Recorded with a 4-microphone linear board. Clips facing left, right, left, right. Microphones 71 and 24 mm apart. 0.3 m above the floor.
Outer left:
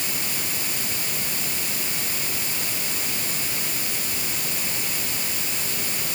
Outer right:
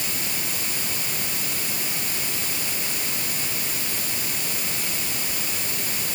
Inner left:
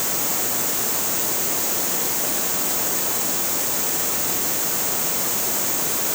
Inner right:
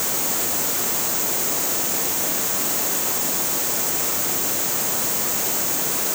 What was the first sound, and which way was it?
Only background noise.